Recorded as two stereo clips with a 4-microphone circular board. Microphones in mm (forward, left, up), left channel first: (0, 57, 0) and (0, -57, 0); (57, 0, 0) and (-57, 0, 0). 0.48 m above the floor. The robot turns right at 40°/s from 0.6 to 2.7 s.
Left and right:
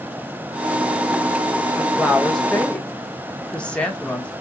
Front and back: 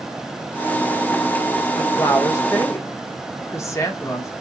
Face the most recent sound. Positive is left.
turn(degrees=25)